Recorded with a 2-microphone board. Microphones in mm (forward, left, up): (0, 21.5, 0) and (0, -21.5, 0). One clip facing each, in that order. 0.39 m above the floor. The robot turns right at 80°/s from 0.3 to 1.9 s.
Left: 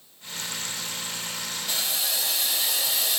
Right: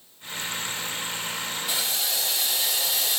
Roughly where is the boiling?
Centre.